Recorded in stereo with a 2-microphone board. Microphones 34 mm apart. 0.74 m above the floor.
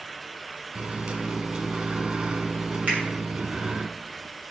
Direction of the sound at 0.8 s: 40° right (ahead or behind).